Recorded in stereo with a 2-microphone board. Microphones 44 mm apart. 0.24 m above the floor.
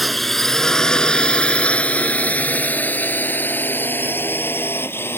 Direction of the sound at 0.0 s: 5° left (ahead or behind).